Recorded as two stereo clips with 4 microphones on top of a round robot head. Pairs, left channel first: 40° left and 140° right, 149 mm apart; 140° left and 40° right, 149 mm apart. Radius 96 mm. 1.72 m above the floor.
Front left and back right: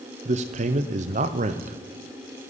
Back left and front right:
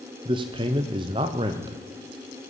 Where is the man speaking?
100° right, 0.6 m.